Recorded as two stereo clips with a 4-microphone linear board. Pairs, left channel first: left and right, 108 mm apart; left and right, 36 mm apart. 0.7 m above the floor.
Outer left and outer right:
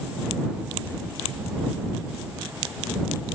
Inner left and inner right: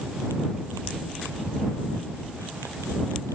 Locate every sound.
Only background noise.